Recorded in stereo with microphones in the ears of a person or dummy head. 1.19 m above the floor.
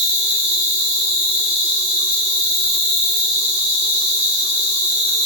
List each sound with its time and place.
0.0 s an insect: 30° right (ahead or behind), 0.9 m